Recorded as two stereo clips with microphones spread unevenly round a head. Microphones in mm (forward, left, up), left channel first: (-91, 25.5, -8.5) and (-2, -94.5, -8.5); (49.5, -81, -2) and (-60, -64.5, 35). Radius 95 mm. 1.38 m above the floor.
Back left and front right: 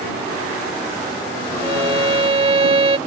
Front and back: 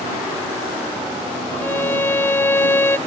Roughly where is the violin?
Right.